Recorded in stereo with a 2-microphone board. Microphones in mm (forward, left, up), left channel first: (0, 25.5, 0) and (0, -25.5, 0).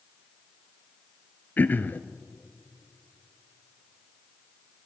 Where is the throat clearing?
35° left (ahead or behind), 0.8 m.